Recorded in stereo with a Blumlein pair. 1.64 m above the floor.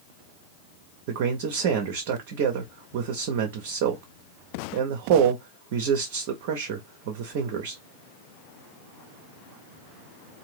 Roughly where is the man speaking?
Ahead right.